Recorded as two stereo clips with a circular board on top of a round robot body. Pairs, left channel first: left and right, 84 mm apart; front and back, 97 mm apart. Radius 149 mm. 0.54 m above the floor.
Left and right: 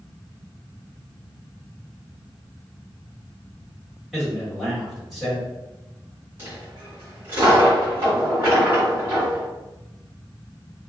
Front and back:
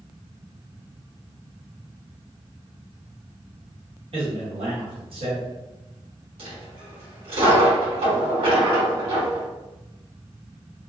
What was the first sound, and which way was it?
A man speaking, straight behind.